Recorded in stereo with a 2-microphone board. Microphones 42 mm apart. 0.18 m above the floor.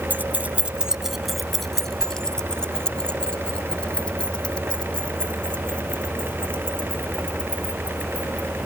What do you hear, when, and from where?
0.1 s keys jangling: 50° right (ahead or behind); by 8.5 s 30° left (ahead or behind)